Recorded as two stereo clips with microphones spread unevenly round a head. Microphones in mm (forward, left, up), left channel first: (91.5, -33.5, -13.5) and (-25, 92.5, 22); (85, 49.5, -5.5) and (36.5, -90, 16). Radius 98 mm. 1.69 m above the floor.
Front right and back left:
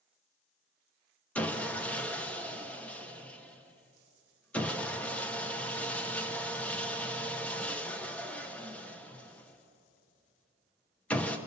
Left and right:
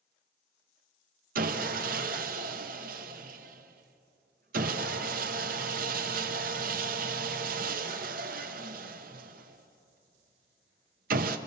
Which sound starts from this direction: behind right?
Sawing, at 1.4 s.